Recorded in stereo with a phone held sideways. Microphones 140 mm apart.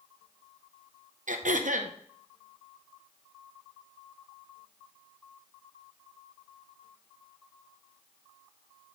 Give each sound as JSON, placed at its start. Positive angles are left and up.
{"t": 1.3, "sound": "throat clearing", "side_deg": -65, "distance_m": 0.7}